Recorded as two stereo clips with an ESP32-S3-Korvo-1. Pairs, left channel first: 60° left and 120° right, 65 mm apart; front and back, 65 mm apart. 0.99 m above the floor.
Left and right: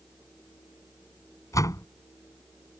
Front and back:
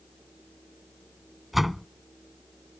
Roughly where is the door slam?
Left.